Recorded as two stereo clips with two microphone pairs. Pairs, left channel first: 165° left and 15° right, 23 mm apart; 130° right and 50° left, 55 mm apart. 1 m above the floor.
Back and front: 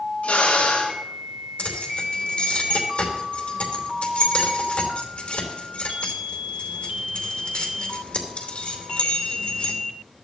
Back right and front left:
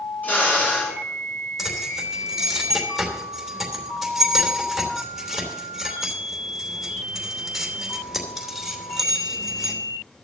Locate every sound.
0.2 s a drill: 175° left, 5.5 m
1.6 s keys jangling: 135° left, 2.5 m